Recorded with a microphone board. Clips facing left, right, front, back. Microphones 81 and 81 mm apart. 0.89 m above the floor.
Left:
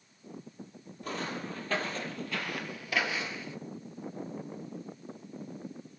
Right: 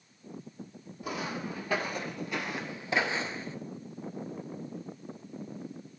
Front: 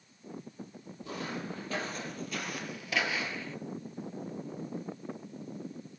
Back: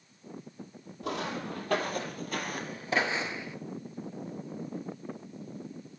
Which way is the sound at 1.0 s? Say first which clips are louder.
Right 1 dB, back 4 dB; 170° right.